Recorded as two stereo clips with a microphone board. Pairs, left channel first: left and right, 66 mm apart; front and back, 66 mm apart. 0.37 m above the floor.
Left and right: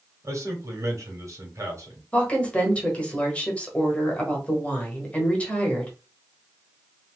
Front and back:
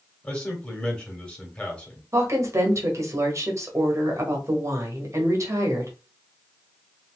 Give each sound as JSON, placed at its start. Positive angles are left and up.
{"t": 0.2, "sound": "a man speaking", "azimuth_deg": -70, "distance_m": 1.4}
{"t": 2.1, "sound": "a woman speaking", "azimuth_deg": 155, "distance_m": 1.3}